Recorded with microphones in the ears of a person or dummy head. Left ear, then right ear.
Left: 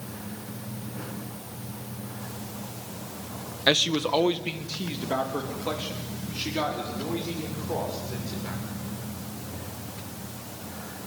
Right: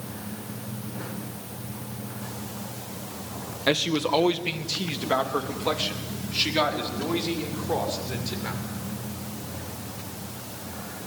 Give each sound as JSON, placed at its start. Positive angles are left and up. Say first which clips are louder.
{"t": 3.7, "sound": "a man speaking", "louder": "left 1 dB", "side_deg": 15, "distance_m": 1.1}